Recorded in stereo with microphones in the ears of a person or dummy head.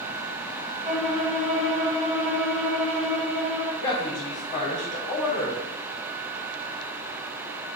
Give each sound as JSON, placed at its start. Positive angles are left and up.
{"t": 0.8, "sound": "a violin", "side_deg": -40, "distance_m": 1.2}
{"t": 3.8, "sound": "a woman speaking", "side_deg": 30, "distance_m": 0.7}